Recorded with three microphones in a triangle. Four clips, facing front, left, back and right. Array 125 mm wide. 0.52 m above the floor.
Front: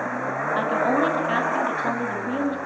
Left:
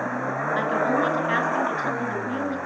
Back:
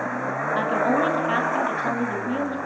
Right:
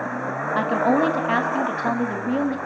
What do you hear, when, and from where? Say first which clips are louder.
0.6 s a woman speaking: right 4 dB, even; 90° right, 4.5 m